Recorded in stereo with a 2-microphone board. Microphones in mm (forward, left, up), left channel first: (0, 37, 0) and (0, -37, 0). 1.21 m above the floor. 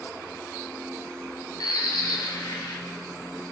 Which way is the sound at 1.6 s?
75° left (ahead or behind).